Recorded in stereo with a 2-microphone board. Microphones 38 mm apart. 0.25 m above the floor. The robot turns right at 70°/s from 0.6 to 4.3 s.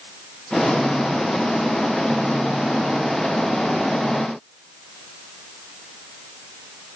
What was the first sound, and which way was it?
Only background noise.